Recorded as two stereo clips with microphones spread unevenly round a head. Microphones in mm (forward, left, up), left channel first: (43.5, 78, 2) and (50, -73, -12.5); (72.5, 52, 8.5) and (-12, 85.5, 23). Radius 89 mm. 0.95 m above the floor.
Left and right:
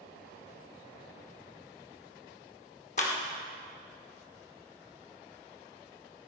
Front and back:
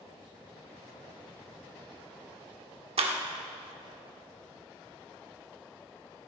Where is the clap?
150° left, 1.7 m.